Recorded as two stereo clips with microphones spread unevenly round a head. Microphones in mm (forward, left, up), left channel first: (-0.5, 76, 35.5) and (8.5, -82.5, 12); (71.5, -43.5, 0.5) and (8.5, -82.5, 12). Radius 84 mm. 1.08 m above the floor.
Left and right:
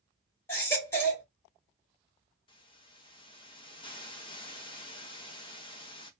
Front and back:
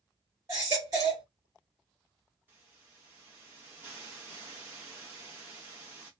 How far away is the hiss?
About 0.7 m.